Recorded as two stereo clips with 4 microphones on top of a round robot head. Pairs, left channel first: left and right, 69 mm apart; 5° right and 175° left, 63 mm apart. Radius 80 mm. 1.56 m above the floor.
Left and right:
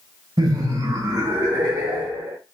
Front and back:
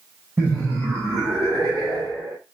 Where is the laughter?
120° right, 1.4 m; by 2.4 s 150° right, 3 m.